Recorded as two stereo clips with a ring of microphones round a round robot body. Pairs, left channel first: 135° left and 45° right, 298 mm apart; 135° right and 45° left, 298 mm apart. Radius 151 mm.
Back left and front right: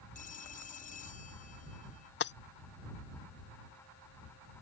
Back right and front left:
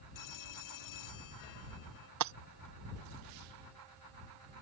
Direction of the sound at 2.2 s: 80° left.